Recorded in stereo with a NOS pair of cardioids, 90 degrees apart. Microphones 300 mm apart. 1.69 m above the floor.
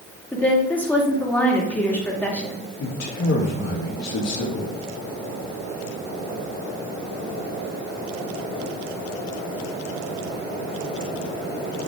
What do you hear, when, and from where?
0.3 s a woman speaking: 5° left, 3 m
2.8 s a man speaking: 65° left, 3 m